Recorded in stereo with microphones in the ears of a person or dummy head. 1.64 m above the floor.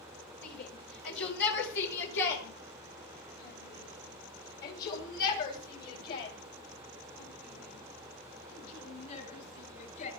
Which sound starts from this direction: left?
A shout, at 0.4 s.